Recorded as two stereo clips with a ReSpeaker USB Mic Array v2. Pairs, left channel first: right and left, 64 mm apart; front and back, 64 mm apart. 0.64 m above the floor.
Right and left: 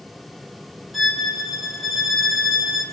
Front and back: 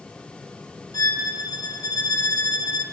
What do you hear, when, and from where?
0.9 s a violin: straight ahead, 3 m